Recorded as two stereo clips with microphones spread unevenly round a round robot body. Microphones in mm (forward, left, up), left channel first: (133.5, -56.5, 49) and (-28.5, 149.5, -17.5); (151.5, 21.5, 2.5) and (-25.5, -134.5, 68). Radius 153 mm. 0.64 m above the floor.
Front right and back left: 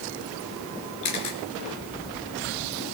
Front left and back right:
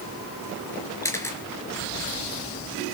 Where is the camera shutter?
40° right, 3 m.